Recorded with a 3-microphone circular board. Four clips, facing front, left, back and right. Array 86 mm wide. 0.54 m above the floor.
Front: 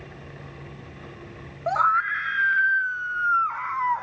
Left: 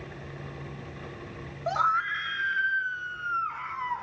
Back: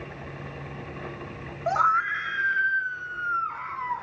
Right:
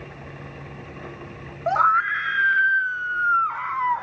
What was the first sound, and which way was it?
A scream, 80° right.